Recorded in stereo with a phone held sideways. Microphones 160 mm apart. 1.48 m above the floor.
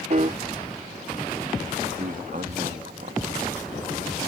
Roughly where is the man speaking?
Right.